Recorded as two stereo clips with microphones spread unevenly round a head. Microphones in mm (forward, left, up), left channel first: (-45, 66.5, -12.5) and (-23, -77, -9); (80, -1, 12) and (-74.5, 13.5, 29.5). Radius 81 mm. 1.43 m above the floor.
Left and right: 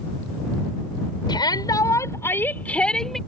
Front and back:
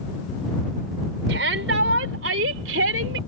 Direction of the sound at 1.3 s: 160° left.